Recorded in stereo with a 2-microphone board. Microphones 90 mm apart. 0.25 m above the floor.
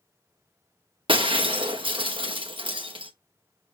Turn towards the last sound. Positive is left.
turn(degrees=-75)  # may be behind; listen again after turning